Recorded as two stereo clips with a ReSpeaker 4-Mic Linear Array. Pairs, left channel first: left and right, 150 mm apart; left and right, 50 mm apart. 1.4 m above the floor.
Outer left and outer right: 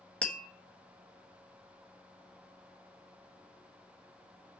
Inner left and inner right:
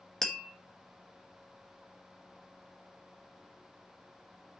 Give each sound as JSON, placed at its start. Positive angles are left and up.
{"t": 0.2, "sound": "tapping", "side_deg": 10, "distance_m": 1.1}